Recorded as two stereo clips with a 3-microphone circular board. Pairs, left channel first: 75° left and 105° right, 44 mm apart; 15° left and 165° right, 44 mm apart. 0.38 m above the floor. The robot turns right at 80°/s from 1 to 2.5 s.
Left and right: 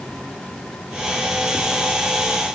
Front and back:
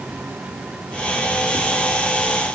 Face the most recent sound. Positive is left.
No sound to turn to.